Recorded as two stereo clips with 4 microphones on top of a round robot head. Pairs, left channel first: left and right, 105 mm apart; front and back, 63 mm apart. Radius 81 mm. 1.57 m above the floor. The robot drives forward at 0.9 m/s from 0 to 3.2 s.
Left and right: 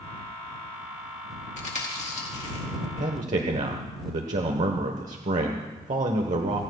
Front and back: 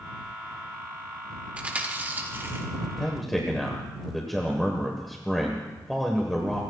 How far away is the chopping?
No chopping in this recording.